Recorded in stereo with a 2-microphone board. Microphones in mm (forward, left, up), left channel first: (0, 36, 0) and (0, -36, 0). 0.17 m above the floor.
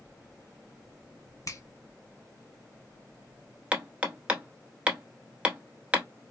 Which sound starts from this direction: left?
A finger snap, at 1.5 s.